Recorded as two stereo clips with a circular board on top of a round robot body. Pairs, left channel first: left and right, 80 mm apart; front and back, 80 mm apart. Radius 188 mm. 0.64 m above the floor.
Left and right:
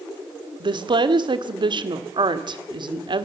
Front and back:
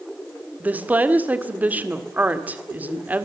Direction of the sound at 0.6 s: 110° right.